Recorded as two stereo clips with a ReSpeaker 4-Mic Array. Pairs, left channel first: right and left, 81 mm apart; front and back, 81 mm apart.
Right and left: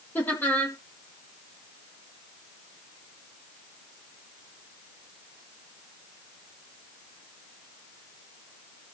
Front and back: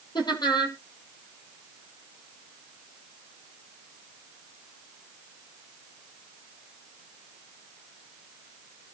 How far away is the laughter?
About 5.5 m.